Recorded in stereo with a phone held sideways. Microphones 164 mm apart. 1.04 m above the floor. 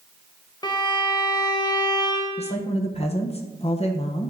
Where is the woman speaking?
40° left (ahead or behind), 0.8 m.